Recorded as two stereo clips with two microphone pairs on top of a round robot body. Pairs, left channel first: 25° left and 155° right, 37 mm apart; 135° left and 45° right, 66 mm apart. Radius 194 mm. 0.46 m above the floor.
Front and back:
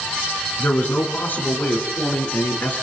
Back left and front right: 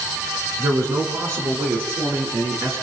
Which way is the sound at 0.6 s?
5° right.